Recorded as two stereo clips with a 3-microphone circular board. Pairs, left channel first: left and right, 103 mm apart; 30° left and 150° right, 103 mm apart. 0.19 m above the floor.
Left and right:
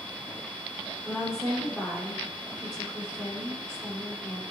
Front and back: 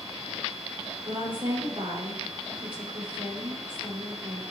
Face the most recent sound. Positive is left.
turn(degrees=-175)